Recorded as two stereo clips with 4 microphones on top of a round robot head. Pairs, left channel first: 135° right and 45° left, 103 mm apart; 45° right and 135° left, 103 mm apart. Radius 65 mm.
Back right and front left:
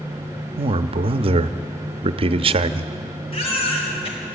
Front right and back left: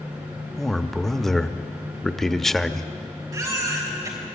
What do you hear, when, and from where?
0.6 s a man speaking: 40° left, 0.8 m
3.3 s a baby crying: 165° right, 3 m